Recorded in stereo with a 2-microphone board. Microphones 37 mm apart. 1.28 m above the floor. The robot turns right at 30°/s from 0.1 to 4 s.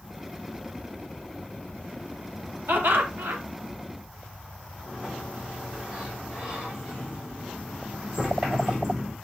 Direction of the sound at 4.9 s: 25° right (ahead or behind).